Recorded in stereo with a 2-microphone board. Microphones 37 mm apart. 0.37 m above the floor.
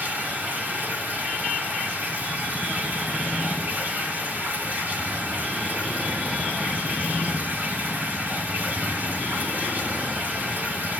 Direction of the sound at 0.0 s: 45° right (ahead or behind).